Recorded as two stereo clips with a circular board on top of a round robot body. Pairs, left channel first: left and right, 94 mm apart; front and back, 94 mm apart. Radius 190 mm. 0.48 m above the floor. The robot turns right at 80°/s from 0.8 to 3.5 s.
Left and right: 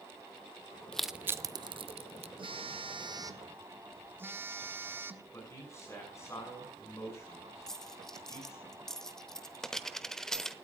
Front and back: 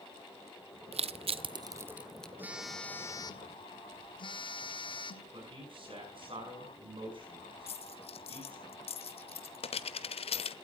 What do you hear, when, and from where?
0.9 s crushing: 170° left, 0.6 m; by 2.3 s 80° right, 0.6 m
2.4 s a phone buzzing: 115° right, 1.4 m; by 5.2 s 25° right, 1.4 m
5.3 s a man speaking: 150° left, 6.5 m
7.7 s a dropped coin: 5° left, 1.0 m